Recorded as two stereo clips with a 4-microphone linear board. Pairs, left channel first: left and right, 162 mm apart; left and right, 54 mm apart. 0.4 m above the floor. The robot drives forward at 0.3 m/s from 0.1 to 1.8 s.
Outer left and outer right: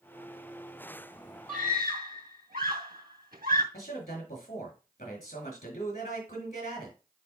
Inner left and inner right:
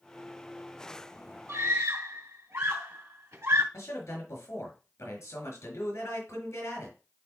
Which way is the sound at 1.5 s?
65° right (ahead or behind).